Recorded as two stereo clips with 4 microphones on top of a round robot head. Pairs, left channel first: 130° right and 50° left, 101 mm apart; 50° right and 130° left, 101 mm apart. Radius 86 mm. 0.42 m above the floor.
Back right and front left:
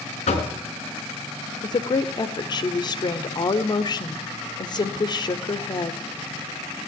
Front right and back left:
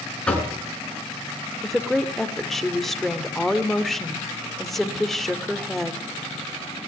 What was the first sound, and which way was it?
Knocking, 135° right.